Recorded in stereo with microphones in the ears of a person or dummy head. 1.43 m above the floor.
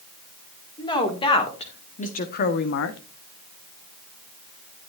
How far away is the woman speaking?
About 2.5 m.